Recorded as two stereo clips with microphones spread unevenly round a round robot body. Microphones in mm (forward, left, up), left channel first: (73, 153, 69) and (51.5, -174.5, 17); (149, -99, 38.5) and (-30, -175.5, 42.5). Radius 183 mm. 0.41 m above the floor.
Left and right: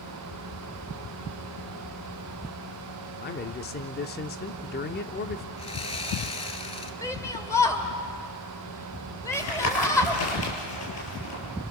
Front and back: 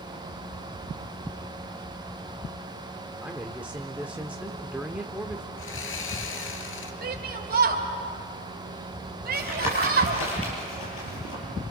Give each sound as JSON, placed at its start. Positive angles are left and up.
{"t": 3.2, "sound": "a man speaking", "azimuth_deg": 125, "distance_m": 0.8}
{"t": 5.6, "sound": "sawing", "azimuth_deg": 15, "distance_m": 2.0}
{"t": 7.0, "sound": "a shout", "azimuth_deg": 175, "distance_m": 2.0}
{"t": 9.3, "sound": "tapping", "azimuth_deg": 45, "distance_m": 7.0}